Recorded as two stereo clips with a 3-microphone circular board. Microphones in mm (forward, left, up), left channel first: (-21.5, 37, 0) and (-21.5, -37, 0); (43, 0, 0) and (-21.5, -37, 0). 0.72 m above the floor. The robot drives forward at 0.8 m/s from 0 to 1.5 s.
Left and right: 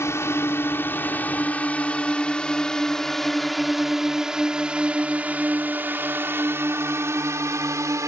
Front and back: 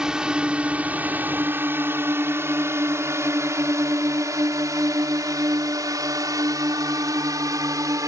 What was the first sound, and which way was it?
A drone, 130° left.